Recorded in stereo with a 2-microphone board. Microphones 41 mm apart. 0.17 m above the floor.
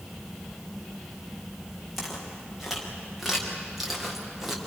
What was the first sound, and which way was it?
Footsteps, 5° right (ahead or behind).